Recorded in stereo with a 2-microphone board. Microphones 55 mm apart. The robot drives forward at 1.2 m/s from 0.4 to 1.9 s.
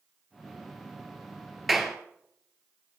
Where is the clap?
Centre (ahead or behind), 2.5 m.